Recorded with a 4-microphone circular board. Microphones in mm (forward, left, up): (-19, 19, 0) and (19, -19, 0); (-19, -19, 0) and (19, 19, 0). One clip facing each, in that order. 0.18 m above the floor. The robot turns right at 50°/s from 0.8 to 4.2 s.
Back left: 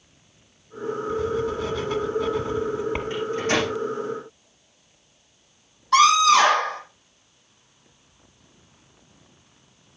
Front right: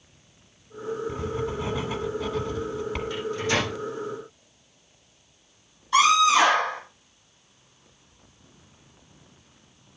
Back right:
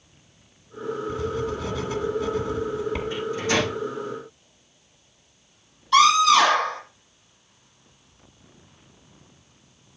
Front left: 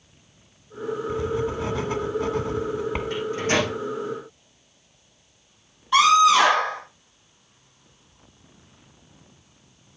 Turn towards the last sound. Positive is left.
turn(degrees=115)